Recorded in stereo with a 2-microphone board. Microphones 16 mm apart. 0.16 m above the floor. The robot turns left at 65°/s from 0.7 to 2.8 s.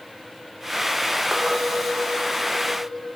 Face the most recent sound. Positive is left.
turn(degrees=-150)